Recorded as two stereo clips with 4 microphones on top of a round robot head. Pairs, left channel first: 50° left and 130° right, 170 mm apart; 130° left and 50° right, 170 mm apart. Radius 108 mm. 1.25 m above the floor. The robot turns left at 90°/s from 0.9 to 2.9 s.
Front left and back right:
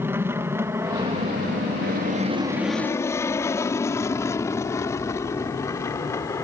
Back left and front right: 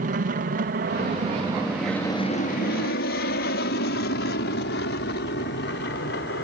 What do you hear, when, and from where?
0.0 s an aircraft: 55° right; by 6.5 s 125° left